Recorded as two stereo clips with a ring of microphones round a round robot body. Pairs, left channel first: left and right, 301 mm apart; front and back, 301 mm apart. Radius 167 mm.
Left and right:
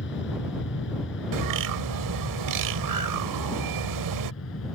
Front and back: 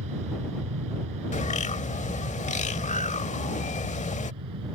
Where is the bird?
70° right.